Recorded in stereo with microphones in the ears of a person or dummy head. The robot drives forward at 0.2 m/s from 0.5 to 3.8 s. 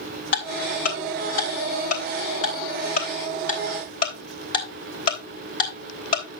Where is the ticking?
60° left (ahead or behind), 3 m; by 6.4 s 50° left (ahead or behind), 3.5 m.